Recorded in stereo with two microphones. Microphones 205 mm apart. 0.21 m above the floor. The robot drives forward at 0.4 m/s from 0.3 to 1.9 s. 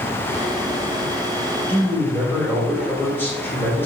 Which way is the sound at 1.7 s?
10° left (ahead or behind).